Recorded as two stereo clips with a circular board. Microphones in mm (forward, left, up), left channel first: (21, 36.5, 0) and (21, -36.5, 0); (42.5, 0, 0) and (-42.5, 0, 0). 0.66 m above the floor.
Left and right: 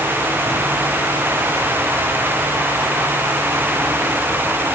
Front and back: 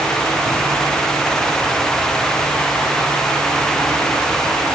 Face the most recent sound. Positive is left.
No sound to turn to.